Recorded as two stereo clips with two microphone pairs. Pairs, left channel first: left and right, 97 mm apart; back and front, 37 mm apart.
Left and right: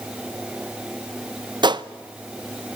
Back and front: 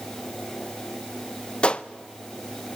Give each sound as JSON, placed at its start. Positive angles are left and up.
{"t": 1.6, "sound": "a gunshot", "azimuth_deg": -120, "distance_m": 0.5}